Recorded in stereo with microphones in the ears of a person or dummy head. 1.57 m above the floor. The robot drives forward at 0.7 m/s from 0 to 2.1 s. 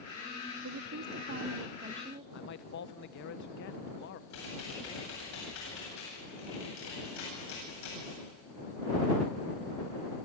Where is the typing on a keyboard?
70° left (ahead or behind), 9 m.